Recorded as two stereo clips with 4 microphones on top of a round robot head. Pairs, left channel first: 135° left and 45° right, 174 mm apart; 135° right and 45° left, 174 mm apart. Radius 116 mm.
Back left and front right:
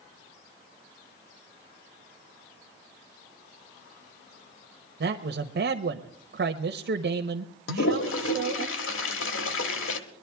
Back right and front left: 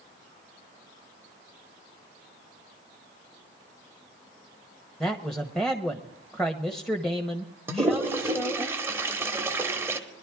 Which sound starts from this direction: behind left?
A toilet flushing, at 7.7 s.